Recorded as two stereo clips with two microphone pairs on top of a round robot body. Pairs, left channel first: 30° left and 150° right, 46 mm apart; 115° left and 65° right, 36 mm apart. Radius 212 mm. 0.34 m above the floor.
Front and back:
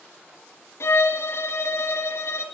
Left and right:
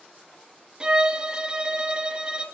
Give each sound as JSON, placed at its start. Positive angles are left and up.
{"t": 0.8, "sound": "a violin", "azimuth_deg": 5, "distance_m": 3.0}